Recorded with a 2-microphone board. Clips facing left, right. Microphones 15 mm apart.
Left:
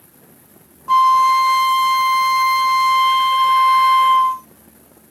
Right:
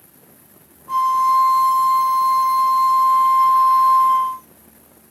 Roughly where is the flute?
Left.